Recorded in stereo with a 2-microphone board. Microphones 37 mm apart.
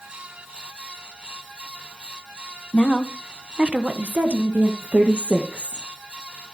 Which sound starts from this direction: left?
A woman speaking, at 2.7 s.